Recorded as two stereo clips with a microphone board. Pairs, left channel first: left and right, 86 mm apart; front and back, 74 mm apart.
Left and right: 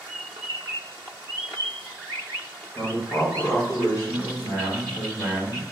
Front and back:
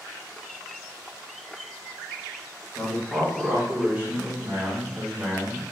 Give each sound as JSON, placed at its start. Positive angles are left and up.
{"t": 2.8, "sound": "a man speaking", "azimuth_deg": 80, "distance_m": 1.0}